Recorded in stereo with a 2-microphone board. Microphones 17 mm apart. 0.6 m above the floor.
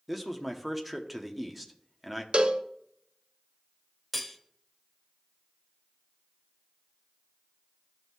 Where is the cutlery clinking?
Centre (ahead or behind), 0.9 m.